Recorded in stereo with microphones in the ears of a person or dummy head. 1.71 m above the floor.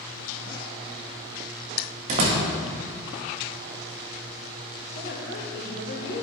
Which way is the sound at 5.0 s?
55° left (ahead or behind).